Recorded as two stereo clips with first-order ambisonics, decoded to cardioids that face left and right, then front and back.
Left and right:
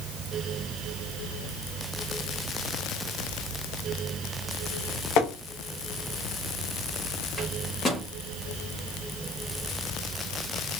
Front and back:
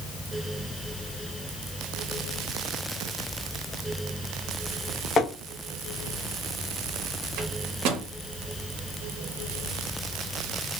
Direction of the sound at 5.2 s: 65° left.